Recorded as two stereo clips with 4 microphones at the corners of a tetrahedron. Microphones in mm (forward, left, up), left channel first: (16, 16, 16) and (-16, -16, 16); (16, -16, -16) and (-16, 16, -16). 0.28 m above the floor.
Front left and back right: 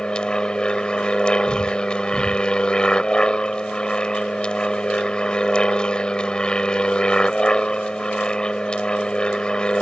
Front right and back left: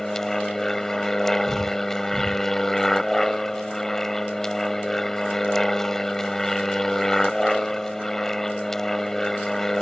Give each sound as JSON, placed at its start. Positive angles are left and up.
{"t": 0.0, "sound": "an aircraft", "azimuth_deg": 20}